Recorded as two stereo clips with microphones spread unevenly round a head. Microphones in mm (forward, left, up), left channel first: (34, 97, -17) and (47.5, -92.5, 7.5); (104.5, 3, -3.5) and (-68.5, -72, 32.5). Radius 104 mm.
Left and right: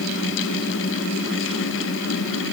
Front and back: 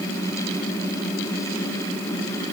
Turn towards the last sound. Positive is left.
No sound to turn to.